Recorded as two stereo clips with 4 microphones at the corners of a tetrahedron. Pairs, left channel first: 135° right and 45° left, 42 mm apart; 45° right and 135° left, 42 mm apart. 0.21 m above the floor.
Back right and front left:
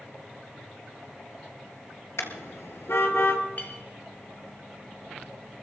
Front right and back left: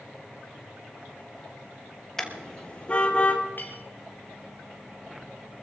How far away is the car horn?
About 2 m.